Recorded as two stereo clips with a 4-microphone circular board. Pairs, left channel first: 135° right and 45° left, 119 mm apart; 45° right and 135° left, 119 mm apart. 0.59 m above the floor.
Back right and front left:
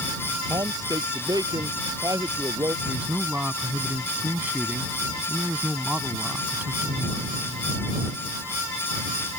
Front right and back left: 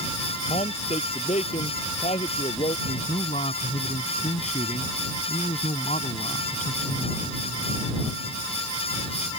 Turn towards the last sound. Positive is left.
turn(degrees=-35)